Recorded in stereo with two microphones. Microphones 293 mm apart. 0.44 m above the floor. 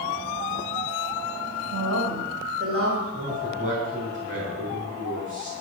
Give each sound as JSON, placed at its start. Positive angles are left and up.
{"t": 1.7, "sound": "a woman speaking", "side_deg": -55, "distance_m": 2.5}
{"t": 3.1, "sound": "a man speaking", "side_deg": -25, "distance_m": 5.0}